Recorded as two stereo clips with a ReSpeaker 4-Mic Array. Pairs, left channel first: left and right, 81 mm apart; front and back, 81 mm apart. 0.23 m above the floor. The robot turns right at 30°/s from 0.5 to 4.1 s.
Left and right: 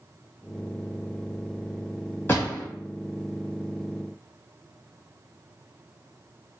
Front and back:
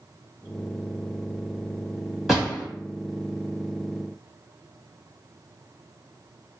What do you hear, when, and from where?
2.3 s a door slam: 95° left, 1.2 m; by 2.6 s 105° left, 1.2 m